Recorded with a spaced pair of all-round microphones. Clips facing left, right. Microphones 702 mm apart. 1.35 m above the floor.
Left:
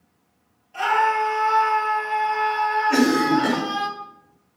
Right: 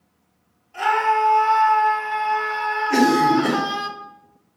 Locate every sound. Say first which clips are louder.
0.7 s a scream: right 1 dB; 10° left (ahead or behind), 3 m; by 3.9 s 65° right (ahead or behind), 0.9 m
2.9 s a cough: right 1 dB; 10° left (ahead or behind), 3.5 m